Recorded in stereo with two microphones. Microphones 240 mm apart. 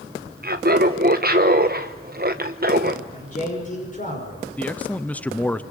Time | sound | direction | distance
0.4 | laughter | 40° right (ahead or behind) | 0.9 m
3.1 | a man speaking | 35° left (ahead or behind) | 5.5 m
4.6 | a man speaking | 5° left (ahead or behind) | 0.8 m